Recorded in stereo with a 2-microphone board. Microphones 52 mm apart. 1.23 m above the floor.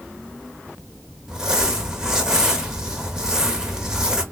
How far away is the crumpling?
About 1.0 m.